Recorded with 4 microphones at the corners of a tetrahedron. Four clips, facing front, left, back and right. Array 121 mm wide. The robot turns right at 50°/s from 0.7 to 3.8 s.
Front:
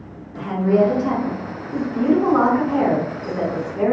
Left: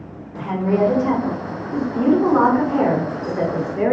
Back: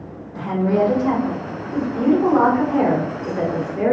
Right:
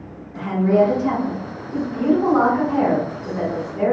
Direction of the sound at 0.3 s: 160° left.